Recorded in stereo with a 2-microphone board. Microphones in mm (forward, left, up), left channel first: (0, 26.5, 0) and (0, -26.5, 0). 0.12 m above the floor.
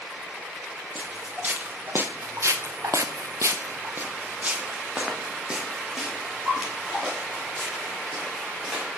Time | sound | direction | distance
0.9 | footsteps | 30° right (ahead or behind) | 1.4 m